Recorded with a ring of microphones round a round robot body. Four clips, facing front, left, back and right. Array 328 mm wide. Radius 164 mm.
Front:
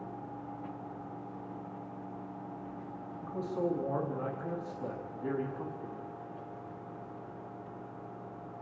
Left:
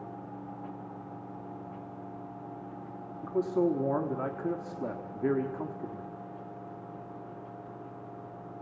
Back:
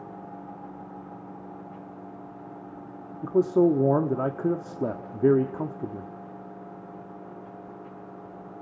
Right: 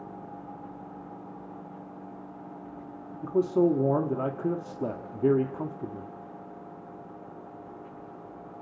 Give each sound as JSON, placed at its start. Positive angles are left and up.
{"t": 3.2, "sound": "a man speaking", "azimuth_deg": -160, "distance_m": 1.3}